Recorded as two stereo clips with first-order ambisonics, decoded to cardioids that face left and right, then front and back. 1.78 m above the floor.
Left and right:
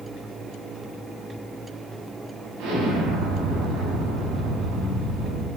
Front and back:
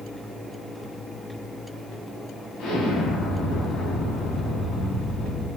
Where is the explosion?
55° right, 1.6 m.